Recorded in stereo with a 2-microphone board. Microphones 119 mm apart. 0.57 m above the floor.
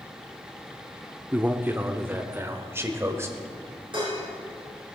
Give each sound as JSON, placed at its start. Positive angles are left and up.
{"t": 1.3, "sound": "a man speaking", "side_deg": -15, "distance_m": 0.8}
{"t": 3.9, "sound": "dishes clattering", "side_deg": -45, "distance_m": 6.0}